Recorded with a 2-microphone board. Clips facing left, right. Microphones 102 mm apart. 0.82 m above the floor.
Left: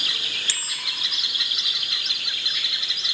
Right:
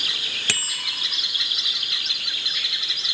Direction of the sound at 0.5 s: 75° right (ahead or behind).